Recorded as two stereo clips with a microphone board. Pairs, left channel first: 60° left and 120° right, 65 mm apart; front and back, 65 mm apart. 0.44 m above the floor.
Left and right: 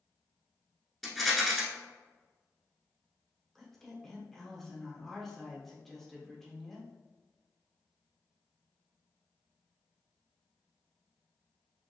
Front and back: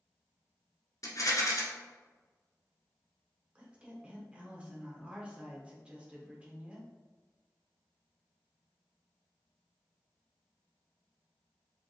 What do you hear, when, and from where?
1.0 s a rattle: 25° right, 1.1 m
3.5 s a woman speaking: 140° left, 1.0 m